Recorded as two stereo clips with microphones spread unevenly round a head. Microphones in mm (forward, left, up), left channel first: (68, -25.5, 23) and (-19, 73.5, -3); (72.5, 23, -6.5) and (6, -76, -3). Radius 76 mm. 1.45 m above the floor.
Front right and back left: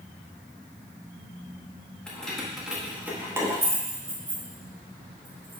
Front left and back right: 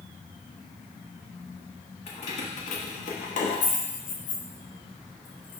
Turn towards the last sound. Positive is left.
turn(degrees=90)